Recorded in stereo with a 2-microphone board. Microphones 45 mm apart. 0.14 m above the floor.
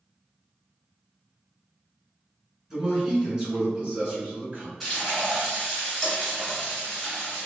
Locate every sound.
2.7 s a man speaking: 10° right (ahead or behind), 1.6 m; by 4.7 s 30° right (ahead or behind), 1.5 m
4.8 s frying: 5° right (ahead or behind), 1.9 m